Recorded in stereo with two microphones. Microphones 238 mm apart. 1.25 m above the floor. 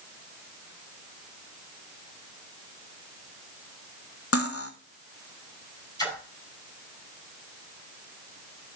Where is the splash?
15° left (ahead or behind), 4.5 m.